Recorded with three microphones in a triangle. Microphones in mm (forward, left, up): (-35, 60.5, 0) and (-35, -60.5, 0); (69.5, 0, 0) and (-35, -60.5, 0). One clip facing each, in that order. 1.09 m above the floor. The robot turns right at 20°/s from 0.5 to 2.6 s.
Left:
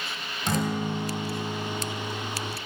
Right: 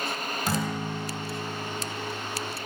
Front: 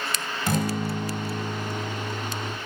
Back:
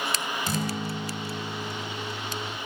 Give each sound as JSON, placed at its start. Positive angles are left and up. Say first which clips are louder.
{"t": 0.5, "sound": "a guitar", "louder": "left 4 dB, front 7 dB", "azimuth_deg": -5, "distance_m": 3.0}